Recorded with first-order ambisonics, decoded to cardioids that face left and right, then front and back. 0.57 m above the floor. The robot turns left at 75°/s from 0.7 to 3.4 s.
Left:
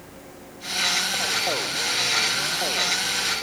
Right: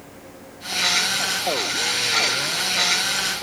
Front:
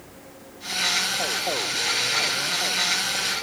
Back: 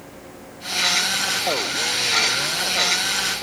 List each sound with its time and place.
Only background noise.